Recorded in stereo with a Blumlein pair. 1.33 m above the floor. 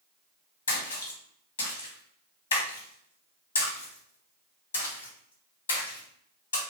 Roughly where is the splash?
Ahead left.